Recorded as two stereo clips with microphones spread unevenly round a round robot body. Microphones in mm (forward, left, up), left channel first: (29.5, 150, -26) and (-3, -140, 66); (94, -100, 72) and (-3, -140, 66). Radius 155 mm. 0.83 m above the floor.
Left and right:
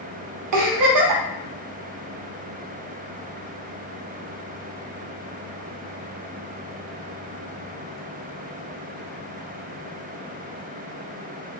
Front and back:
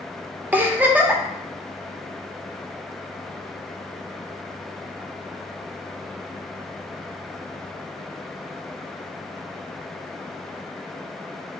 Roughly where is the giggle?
Right.